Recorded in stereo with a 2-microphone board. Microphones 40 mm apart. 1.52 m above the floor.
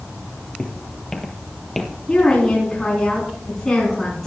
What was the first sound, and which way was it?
Footsteps, 20° left (ahead or behind).